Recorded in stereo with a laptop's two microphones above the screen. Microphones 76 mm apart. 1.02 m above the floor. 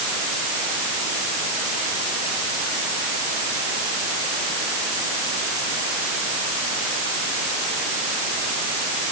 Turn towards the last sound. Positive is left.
No sound to turn to.